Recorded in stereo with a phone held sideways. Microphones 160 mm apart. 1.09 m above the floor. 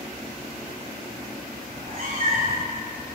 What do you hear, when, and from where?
1.7 s a cat meowing: 55° right (ahead or behind), 2.5 m